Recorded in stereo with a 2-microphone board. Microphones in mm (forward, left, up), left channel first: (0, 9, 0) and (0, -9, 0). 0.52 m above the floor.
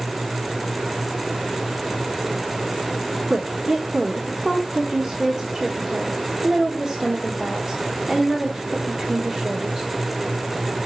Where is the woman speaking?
35° right (ahead or behind), 1.6 m.